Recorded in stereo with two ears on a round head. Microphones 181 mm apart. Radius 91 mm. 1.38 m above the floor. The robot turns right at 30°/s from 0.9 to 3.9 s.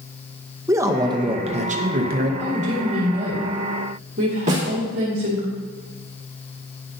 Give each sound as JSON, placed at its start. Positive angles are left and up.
{"t": 0.7, "sound": "a man speaking", "azimuth_deg": -165, "distance_m": 0.7}
{"t": 2.4, "sound": "a woman speaking", "azimuth_deg": -170, "distance_m": 1.9}
{"t": 4.5, "sound": "a snare drum", "side_deg": -35, "distance_m": 2.0}